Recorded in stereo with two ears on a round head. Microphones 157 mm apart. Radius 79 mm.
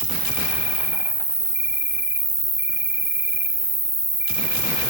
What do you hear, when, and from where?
0.0 s an insect: 15° right (ahead or behind), 1.1 m